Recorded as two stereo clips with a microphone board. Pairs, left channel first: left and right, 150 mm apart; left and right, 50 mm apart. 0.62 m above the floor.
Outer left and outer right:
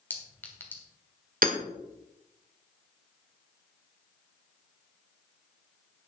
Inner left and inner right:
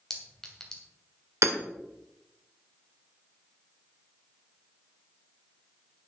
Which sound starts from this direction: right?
Hammering, at 1.4 s.